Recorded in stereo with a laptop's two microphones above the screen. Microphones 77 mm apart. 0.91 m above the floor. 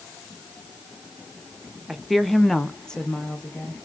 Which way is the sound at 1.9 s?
5° right (ahead or behind).